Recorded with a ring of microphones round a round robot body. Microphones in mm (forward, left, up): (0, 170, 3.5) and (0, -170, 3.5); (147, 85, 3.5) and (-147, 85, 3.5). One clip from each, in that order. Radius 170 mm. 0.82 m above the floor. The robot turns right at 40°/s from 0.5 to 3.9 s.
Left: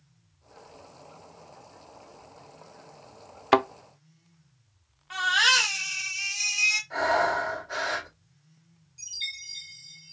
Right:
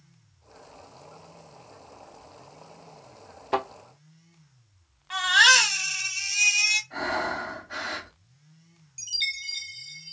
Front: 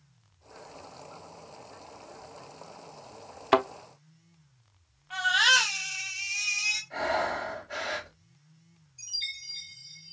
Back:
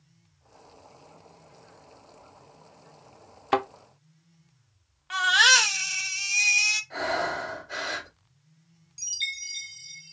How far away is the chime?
About 1.1 m.